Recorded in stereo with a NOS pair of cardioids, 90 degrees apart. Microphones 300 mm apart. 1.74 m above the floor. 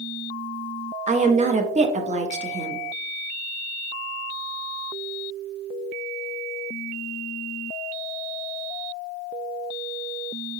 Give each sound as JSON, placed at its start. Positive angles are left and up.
{"t": 1.1, "sound": "a woman speaking", "azimuth_deg": -25, "distance_m": 0.7}